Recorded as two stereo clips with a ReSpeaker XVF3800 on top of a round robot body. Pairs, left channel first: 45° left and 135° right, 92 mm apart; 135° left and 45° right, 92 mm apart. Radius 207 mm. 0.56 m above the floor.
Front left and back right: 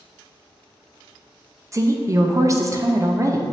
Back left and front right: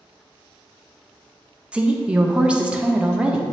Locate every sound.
1.7 s a woman speaking: 115° right, 0.7 m